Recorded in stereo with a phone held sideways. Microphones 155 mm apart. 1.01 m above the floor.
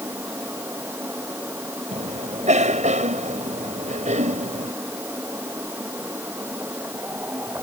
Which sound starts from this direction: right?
A cough, at 1.9 s.